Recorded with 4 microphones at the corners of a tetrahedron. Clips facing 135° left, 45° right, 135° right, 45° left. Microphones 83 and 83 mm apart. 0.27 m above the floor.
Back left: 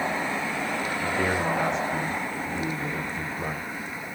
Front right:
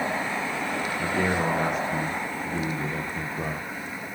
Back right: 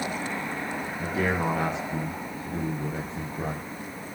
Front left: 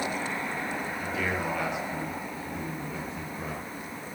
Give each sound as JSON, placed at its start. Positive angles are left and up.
{"t": 1.0, "sound": "a man speaking", "azimuth_deg": -85, "distance_m": 7.5}